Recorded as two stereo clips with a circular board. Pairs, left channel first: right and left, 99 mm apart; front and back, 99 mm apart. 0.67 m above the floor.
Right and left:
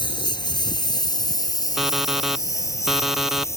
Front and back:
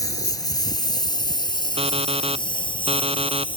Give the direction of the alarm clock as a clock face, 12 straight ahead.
6 o'clock.